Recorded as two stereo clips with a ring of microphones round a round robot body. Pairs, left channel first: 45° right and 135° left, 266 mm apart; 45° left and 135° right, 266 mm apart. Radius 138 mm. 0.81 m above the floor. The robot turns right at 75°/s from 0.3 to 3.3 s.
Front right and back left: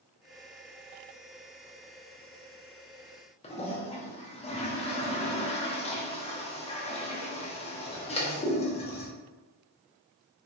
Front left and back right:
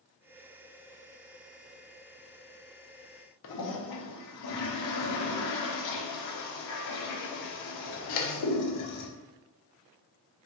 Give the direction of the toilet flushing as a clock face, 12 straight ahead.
11 o'clock.